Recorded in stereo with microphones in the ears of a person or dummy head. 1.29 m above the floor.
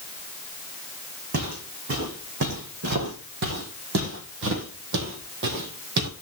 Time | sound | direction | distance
1.3 | footsteps | 45° right (ahead or behind) | 3.5 m